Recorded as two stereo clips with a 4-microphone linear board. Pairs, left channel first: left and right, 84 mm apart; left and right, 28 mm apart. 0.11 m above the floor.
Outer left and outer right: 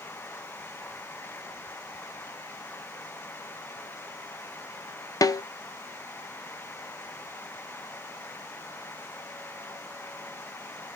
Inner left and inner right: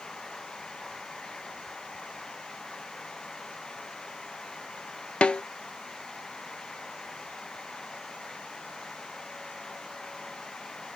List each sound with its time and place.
5.2 s a snare drum: 50° left (ahead or behind), 0.6 m